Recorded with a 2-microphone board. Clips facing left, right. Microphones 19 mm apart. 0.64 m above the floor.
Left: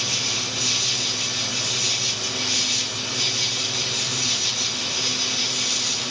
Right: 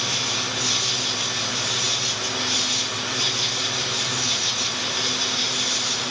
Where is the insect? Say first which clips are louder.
Even; 25° left (ahead or behind), 1.3 m.